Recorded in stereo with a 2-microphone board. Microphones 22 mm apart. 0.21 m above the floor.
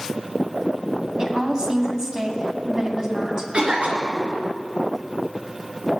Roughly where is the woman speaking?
Right.